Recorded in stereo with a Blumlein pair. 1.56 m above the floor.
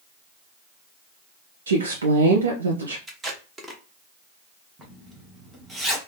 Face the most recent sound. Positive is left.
turn(degrees=-5)